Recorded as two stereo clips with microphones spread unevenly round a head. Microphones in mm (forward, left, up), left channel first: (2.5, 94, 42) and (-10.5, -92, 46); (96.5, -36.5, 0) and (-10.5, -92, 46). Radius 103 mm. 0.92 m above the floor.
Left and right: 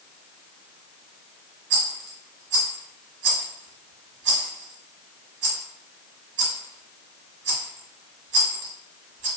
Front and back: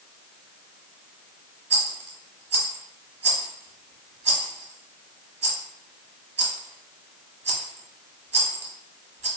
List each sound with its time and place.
1.7 s a rattle: 125° right, 1.2 m